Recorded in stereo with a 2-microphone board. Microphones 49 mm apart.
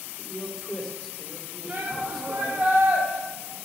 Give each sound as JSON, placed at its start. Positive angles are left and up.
{"t": 0.2, "sound": "a man speaking", "side_deg": -5, "distance_m": 2.5}
{"t": 1.7, "sound": "a shout", "side_deg": -40, "distance_m": 1.8}